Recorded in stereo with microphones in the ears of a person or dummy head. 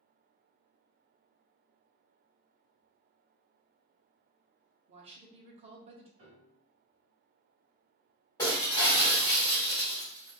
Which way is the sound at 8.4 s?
20° left (ahead or behind).